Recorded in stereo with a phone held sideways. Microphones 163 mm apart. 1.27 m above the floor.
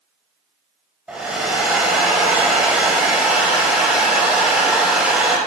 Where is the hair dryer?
5° right (ahead or behind), 1.4 m.